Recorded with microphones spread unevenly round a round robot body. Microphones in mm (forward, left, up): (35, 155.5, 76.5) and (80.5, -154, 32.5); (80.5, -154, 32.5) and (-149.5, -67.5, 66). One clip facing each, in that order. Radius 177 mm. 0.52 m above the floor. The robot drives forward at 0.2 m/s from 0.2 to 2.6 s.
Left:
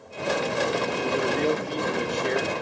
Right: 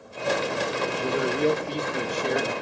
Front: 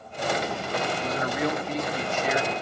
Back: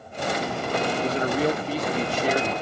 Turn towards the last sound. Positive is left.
turn(degrees=-155)